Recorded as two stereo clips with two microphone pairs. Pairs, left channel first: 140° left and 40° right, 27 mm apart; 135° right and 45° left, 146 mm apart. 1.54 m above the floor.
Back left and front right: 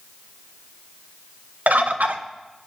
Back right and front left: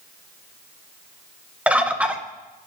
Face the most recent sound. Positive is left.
turn(degrees=-35)